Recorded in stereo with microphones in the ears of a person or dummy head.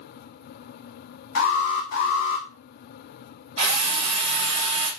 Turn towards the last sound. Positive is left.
turn(degrees=-30)  # may be behind; listen again after turning